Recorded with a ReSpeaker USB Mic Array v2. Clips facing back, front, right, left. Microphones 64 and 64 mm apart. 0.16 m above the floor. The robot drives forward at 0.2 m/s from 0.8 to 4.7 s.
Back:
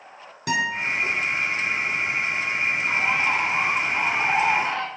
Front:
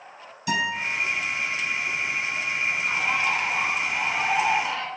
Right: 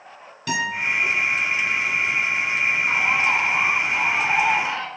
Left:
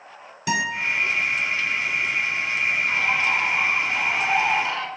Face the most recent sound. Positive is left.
turn(degrees=-145)